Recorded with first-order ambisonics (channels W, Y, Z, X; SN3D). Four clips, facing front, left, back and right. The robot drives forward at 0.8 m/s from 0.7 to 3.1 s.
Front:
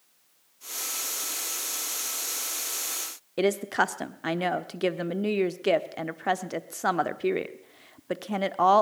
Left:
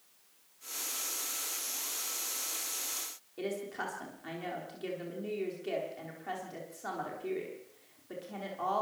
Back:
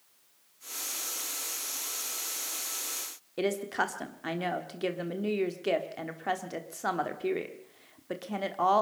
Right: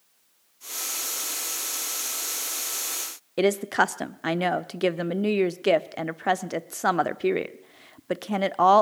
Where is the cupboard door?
No cupboard door in this recording.